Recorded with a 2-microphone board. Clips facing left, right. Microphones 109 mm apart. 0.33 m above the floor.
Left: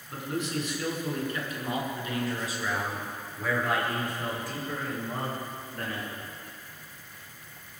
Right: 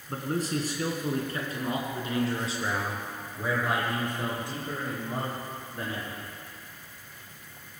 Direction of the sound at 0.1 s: 40° right (ahead or behind).